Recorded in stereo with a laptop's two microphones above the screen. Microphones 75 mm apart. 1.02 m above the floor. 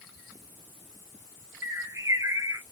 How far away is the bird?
About 0.7 m.